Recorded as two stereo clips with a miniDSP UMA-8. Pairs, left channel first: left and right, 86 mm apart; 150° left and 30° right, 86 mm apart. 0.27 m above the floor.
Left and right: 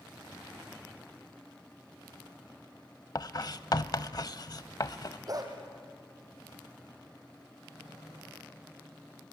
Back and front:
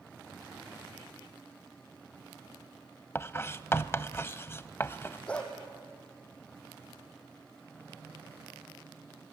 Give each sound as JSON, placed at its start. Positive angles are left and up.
{"t": 3.1, "sound": "writing", "azimuth_deg": 100, "distance_m": 0.5}
{"t": 5.3, "sound": "a dog barking", "azimuth_deg": -135, "distance_m": 3.5}